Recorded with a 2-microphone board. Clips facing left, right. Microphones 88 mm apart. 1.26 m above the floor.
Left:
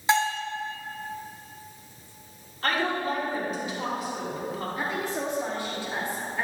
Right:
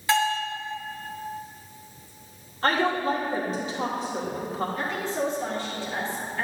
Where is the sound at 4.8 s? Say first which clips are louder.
Right 2 dB; 15° left (ahead or behind), 3 m.